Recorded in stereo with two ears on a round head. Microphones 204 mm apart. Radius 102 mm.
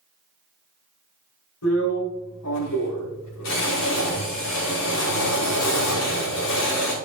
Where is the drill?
80° left, 6 m.